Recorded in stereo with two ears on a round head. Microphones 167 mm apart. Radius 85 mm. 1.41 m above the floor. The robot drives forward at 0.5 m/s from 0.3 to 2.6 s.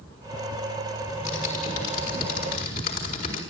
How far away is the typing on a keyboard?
About 5 m.